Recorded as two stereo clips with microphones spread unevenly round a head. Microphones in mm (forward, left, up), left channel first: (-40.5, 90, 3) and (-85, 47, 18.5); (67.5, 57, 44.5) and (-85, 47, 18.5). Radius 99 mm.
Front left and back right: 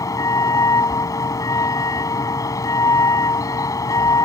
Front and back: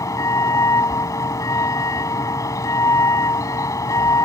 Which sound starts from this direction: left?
A vehicle, at 0.0 s.